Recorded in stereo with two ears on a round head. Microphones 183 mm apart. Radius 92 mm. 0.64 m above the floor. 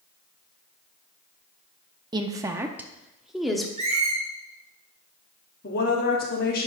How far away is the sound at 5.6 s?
About 1.2 m.